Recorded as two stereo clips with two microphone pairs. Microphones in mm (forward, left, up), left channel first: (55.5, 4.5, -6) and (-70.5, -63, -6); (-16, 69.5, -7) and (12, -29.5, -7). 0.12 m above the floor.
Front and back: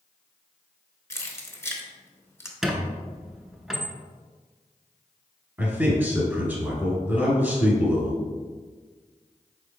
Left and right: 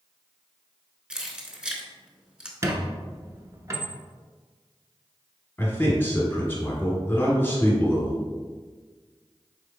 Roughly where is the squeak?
Right.